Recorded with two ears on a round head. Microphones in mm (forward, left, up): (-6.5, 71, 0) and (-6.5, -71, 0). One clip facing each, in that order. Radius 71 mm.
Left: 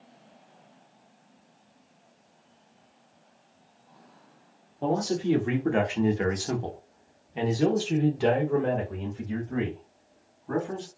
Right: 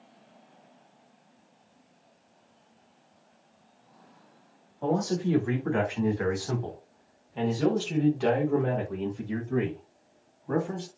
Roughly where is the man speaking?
Left.